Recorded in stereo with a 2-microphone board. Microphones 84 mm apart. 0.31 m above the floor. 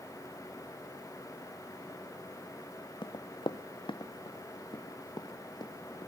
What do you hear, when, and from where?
3.0 s running footsteps: 65° left (ahead or behind), 0.9 m; by 6.1 s 55° left (ahead or behind), 3 m